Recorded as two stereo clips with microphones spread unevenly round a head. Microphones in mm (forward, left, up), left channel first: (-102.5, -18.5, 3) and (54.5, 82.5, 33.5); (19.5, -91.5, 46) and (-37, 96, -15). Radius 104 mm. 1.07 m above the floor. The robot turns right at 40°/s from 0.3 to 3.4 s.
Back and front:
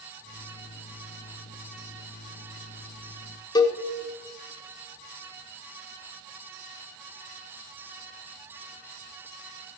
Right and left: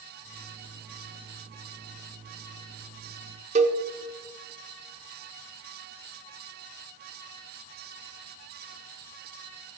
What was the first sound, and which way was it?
A cowbell, 155° left.